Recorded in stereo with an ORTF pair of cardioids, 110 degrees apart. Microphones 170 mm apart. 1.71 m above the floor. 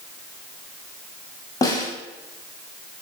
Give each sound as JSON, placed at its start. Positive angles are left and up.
{"t": 1.6, "sound": "a snare drum", "azimuth_deg": 20, "distance_m": 0.8}